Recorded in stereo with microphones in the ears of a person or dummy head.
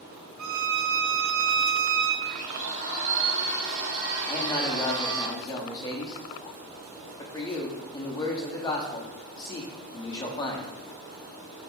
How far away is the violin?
About 0.6 m.